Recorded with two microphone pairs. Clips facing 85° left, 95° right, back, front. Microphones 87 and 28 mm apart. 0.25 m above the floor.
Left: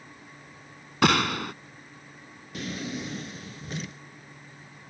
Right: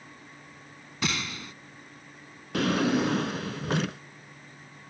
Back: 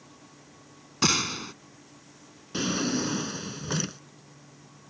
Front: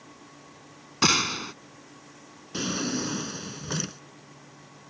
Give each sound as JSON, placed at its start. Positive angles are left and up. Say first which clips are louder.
{"t": 1.0, "sound": "a gunshot", "louder": "left 10 dB, front 3 dB", "azimuth_deg": 75}
{"t": 2.5, "sound": "a drawer", "louder": "right 10 dB, back 2 dB", "azimuth_deg": -100}